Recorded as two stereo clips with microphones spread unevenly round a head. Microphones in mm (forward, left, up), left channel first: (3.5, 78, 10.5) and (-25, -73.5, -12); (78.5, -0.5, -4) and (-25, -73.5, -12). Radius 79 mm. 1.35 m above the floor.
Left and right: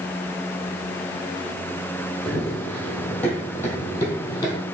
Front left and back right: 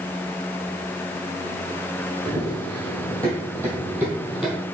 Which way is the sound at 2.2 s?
160° left.